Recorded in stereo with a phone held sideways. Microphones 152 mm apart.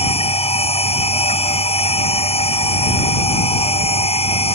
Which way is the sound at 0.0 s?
40° left (ahead or behind).